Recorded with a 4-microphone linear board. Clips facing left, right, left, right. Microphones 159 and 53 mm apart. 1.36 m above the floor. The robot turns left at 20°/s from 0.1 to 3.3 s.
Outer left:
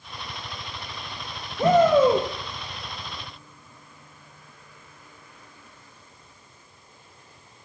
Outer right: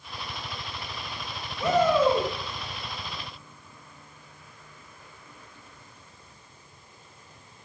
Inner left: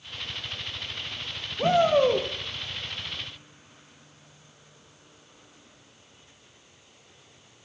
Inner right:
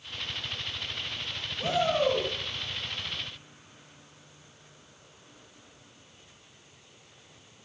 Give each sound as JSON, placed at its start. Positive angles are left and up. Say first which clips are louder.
{"t": 1.6, "sound": "a shout", "louder": "outer left 5 dB, inner left 6 dB", "side_deg": 50, "distance_m": 0.8}